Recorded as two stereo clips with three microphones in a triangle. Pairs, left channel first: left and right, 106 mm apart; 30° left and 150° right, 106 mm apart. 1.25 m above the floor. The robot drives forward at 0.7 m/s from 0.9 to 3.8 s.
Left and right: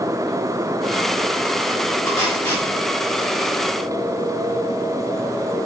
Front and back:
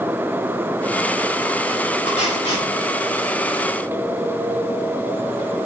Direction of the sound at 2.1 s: 35° left.